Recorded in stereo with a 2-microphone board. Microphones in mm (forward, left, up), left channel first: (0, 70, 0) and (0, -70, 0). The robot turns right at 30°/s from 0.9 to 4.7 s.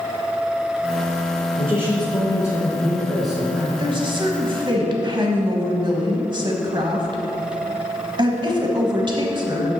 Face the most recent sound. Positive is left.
turn(degrees=-35)  # may be behind; listen again after turning